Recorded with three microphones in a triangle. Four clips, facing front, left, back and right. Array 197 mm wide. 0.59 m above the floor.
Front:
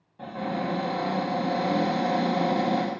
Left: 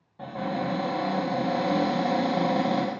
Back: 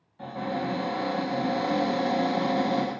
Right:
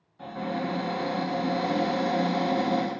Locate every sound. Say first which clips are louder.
0.2 s a cupboard door: left 1 dB, front 1 dB; 65° left, 0.9 m